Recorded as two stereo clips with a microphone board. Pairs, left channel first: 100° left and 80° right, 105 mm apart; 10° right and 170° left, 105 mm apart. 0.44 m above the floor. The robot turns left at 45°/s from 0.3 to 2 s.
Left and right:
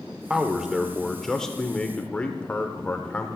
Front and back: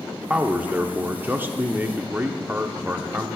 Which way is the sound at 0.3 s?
140° right.